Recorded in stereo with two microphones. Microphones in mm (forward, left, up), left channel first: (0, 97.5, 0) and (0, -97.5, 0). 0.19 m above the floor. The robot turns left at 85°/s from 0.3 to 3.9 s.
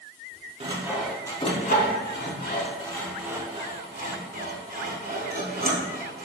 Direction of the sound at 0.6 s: 35° right (ahead or behind).